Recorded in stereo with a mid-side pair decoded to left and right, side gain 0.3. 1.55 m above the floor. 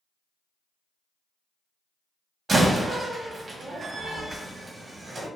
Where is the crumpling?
I don't hear crumpling.